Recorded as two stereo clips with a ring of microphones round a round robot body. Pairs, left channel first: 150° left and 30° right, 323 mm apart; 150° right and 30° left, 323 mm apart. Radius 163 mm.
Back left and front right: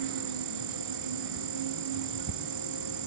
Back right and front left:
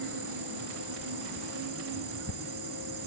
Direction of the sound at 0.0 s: 20° right.